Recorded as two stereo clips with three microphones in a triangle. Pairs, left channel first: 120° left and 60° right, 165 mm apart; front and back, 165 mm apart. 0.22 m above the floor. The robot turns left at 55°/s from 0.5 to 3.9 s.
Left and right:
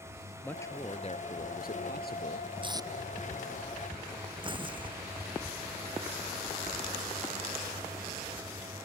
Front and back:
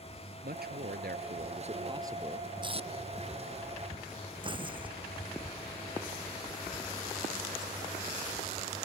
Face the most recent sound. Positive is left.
turn(degrees=-120)